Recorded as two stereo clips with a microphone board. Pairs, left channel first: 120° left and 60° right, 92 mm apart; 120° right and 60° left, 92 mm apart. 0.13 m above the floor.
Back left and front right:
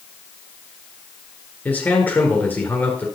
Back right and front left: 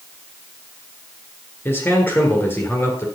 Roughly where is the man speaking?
Behind.